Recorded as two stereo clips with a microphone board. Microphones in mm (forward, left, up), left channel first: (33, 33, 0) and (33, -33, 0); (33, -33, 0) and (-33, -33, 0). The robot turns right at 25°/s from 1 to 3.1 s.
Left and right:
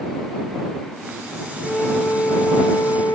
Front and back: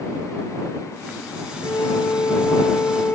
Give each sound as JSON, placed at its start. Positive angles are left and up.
{"t": 1.6, "sound": "a flute", "azimuth_deg": 20}